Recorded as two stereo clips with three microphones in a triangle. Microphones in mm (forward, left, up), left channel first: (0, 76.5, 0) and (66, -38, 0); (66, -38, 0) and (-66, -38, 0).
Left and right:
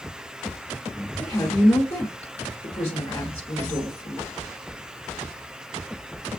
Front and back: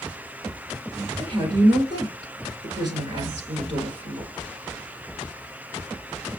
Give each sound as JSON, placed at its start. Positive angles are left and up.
{"t": 1.2, "sound": "a woman speaking", "azimuth_deg": 165, "distance_m": 1.5}